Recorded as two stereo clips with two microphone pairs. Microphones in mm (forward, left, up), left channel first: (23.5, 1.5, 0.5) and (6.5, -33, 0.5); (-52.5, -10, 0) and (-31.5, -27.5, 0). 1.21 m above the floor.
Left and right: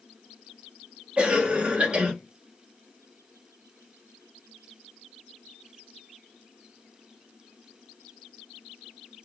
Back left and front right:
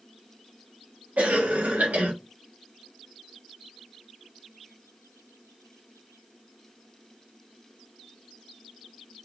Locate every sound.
1.2 s a cough: 55° right, 1.0 m